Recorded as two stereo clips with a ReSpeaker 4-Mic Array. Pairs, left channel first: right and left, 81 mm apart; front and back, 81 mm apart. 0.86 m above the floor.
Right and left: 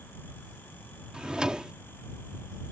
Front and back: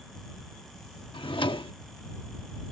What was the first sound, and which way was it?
A drawer, 10° left.